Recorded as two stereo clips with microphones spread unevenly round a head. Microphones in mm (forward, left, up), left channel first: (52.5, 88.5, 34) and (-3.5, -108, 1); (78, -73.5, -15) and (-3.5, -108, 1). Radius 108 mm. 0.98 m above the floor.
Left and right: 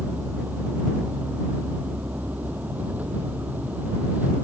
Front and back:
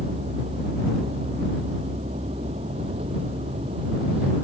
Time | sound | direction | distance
0.0 | a vehicle | 170° left | ?